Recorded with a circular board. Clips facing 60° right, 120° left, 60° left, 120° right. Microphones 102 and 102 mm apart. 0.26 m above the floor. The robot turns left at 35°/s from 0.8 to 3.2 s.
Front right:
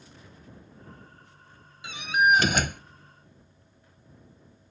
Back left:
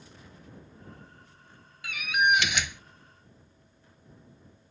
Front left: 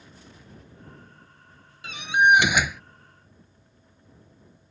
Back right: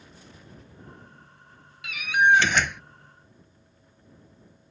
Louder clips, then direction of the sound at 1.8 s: Front right 3 dB, front left 1 dB; 5° left.